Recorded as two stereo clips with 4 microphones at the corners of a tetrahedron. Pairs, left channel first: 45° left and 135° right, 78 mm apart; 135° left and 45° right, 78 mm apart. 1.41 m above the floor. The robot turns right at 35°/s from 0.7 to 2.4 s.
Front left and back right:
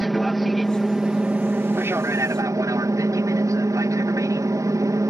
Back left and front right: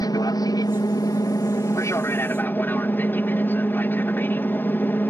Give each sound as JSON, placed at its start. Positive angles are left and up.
{"t": 0.0, "sound": "an aircraft", "azimuth_deg": 135}